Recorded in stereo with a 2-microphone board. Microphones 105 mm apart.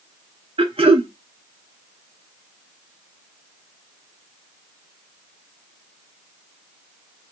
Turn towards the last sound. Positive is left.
turn(degrees=-65)  # may be behind; listen again after turning